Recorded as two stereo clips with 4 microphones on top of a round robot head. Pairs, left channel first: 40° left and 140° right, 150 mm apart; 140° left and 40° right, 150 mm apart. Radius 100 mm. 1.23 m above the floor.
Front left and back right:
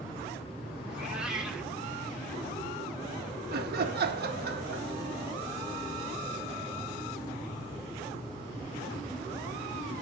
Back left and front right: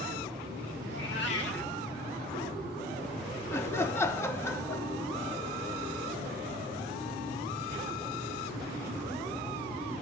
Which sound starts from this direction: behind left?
A cat meowing, at 0.9 s.